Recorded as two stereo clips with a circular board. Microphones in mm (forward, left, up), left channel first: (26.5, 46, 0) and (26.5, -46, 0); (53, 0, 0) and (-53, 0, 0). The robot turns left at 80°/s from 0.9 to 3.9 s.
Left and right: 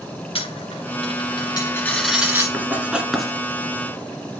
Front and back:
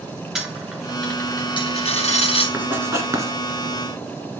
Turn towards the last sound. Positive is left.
turn(degrees=125)